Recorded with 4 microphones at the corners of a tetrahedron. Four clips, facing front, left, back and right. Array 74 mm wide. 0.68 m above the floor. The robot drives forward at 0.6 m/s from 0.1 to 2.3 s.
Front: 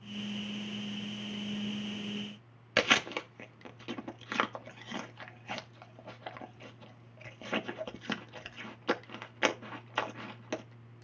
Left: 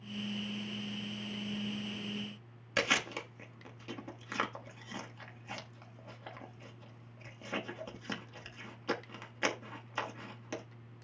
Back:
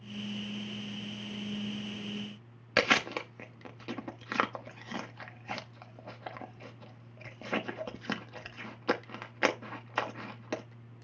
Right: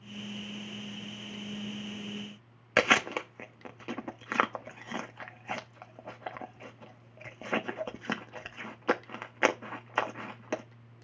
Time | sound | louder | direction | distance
2.8 | chewing | right 7 dB, back 1 dB | 105° right | 1.0 m